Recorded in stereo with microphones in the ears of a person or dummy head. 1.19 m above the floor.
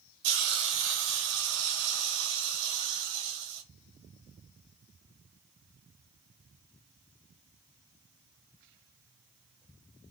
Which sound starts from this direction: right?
A hiss, at 0.2 s.